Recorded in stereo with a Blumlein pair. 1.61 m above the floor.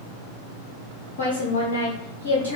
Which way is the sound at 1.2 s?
65° left.